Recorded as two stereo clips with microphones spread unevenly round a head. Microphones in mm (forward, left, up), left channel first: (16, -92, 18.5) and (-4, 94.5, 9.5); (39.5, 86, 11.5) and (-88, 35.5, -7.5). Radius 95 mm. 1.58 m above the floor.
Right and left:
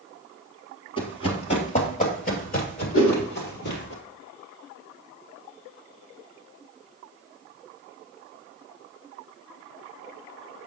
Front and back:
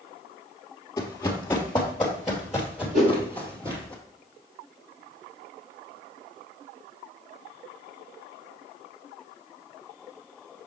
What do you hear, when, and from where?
1.0 s running footsteps: 40° right, 2 m; by 3.9 s 85° right, 2.5 m
2.9 s a whoosh: 105° right, 2.5 m